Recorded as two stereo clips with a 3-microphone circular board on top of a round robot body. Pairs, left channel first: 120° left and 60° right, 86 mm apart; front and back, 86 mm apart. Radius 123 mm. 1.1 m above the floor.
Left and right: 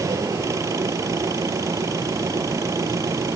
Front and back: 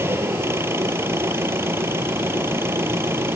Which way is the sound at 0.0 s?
115° right.